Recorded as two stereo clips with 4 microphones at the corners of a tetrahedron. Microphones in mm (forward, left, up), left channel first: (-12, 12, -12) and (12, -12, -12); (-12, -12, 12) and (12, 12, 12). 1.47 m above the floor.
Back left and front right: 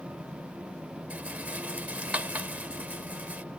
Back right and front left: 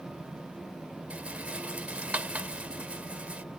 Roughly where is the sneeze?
No sneeze in this recording.